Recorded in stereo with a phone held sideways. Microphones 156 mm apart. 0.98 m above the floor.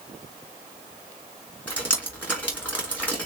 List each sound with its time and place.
1.7 s dripping: 10° left (ahead or behind), 2.5 m